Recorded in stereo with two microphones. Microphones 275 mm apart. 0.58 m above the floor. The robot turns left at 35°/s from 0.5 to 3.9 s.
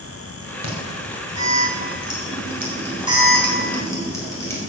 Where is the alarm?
65° right (ahead or behind), 4 m; by 4.6 s 10° left (ahead or behind), 4 m.